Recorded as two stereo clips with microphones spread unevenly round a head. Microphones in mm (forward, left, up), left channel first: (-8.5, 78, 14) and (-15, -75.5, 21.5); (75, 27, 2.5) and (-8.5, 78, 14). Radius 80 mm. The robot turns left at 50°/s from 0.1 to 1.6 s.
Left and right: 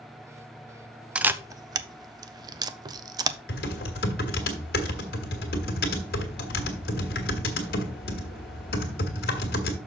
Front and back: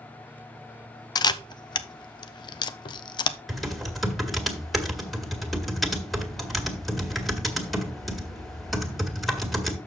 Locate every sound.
1.1 s a camera shutter: 10° right, 0.5 m; by 3.4 s 30° right, 0.5 m
3.5 s typing on a keyboard: 65° left, 1.9 m